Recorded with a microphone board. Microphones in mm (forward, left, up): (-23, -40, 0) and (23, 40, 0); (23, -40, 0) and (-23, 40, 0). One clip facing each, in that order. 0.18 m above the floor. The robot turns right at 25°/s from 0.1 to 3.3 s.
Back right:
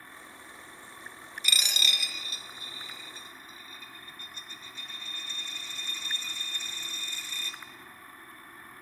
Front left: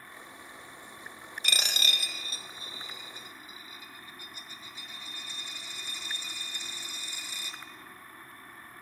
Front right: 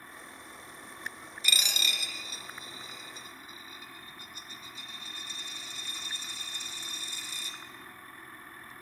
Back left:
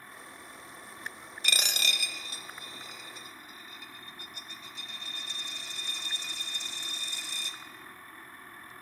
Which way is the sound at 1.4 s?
90° left.